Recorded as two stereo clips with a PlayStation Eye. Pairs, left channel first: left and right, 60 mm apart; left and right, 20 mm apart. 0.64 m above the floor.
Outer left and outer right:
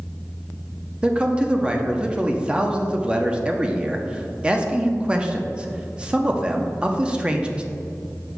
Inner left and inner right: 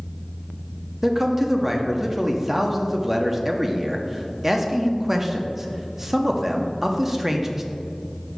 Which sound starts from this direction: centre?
A man speaking, at 1.0 s.